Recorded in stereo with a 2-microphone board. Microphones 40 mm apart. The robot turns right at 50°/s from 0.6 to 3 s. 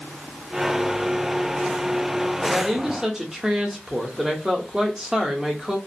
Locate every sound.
2.4 s a woman speaking: centre (ahead or behind), 0.7 m; by 5.8 s 15° right (ahead or behind), 0.7 m